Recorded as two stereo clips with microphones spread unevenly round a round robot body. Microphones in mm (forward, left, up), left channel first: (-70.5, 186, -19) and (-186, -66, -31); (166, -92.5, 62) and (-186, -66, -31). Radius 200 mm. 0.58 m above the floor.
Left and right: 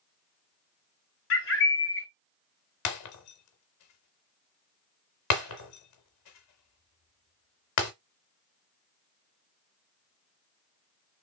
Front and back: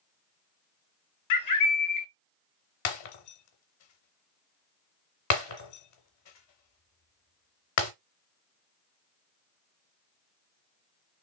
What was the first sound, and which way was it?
A bird, 35° left.